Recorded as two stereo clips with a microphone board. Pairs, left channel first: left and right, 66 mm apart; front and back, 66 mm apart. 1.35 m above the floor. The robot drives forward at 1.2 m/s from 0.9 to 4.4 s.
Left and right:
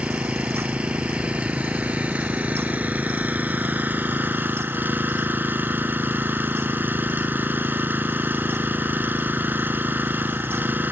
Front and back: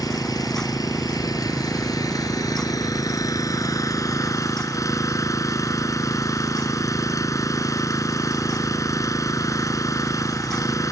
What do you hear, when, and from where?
0.0 s an engine running: 20° right; by 10.9 s 30° right